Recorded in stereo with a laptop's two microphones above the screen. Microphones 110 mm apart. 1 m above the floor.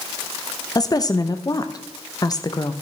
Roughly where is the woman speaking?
Left.